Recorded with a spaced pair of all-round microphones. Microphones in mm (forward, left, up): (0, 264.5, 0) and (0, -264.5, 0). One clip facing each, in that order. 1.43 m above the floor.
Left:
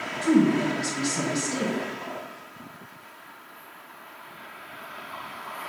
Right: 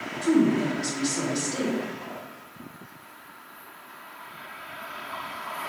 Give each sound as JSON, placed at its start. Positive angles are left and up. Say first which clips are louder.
{"t": 0.2, "sound": "a woman speaking", "louder": "left 1 dB", "side_deg": 45, "distance_m": 1.1}